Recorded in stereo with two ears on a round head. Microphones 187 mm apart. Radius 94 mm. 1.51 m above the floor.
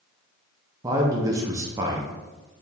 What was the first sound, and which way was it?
A man speaking, 15° right (ahead or behind).